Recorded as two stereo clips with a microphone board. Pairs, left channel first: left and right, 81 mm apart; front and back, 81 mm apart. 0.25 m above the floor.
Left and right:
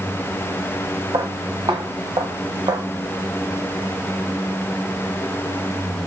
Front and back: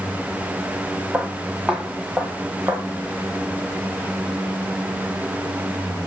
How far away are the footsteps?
About 4 m.